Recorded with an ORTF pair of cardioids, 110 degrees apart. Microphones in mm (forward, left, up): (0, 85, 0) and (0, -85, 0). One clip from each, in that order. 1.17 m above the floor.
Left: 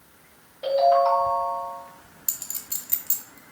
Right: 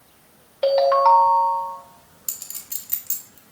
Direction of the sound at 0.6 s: 70° right.